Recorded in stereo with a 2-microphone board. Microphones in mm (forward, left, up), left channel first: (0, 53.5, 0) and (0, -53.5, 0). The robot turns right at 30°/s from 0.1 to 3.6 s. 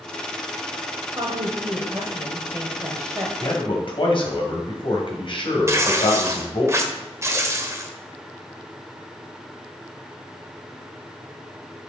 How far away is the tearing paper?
About 0.8 m.